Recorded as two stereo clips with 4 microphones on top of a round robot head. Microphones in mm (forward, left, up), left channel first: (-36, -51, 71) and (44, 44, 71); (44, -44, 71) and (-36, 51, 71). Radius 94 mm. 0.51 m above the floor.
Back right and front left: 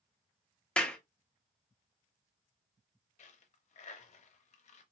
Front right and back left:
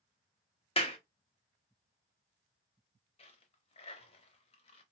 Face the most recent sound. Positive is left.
turn(degrees=-95)